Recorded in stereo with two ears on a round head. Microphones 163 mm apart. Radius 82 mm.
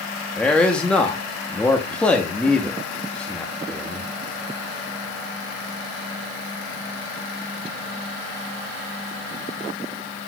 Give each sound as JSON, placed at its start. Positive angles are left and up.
{"t": 0.4, "sound": "a man speaking", "side_deg": 5, "distance_m": 1.0}